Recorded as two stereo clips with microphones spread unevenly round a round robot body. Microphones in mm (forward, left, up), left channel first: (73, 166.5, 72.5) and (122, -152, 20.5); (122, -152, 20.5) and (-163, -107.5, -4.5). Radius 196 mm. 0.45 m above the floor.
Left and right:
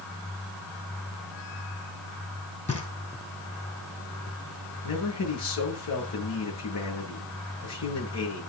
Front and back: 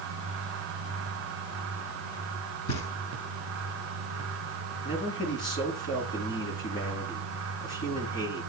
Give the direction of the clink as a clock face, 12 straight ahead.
No clink in this recording.